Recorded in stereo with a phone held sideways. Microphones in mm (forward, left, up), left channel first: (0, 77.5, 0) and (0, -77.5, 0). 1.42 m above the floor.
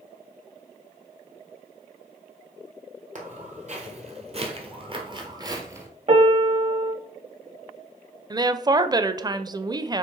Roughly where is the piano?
Right.